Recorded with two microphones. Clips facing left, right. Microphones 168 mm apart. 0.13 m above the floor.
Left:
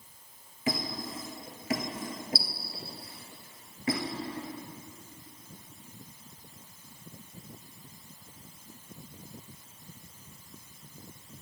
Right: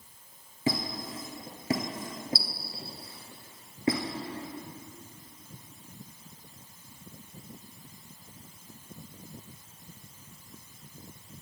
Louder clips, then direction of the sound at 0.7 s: Right 2 dB; 30° right (ahead or behind).